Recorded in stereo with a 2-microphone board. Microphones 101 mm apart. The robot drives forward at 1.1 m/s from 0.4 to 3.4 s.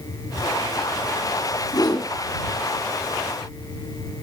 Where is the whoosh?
40° left (ahead or behind), 2.5 m; by 2.1 s 35° left (ahead or behind), 3 m.